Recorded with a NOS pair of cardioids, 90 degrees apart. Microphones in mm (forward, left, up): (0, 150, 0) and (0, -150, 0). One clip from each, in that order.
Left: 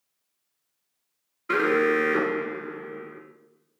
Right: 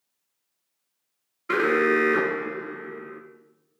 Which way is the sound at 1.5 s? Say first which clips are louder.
Right 1 dB; 5° right.